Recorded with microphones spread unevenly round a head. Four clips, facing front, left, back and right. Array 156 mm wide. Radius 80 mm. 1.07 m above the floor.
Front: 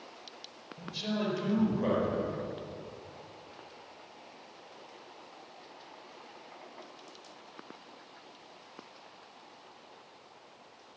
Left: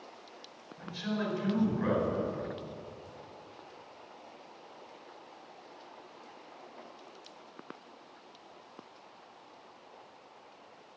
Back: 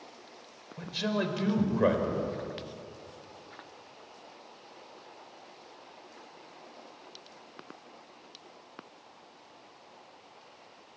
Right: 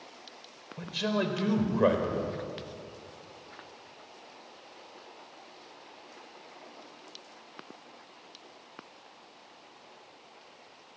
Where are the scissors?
I don't hear scissors.